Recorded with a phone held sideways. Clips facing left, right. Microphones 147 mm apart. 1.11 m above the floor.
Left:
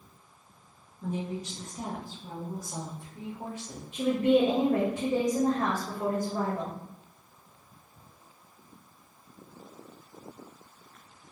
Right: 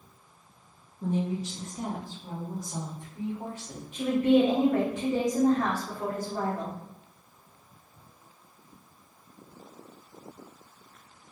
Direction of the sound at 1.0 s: 40° right (ahead or behind).